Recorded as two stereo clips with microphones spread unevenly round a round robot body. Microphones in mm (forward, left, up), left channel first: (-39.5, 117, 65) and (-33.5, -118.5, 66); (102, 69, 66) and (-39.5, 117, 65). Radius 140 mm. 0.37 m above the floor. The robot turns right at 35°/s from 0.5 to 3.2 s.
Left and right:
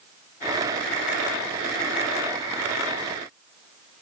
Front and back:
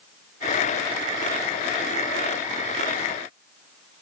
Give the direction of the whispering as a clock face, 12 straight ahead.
No whispering in this recording.